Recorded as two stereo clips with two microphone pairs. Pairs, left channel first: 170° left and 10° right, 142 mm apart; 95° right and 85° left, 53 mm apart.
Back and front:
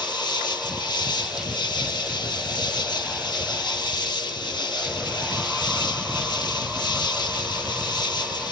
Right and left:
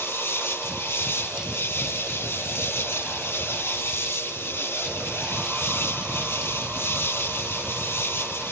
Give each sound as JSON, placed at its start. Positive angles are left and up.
{"t": 0.0, "sound": "an insect", "azimuth_deg": -130}